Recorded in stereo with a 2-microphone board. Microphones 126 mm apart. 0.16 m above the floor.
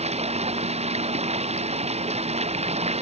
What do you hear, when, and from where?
0.0 s running water: 65° right (ahead or behind)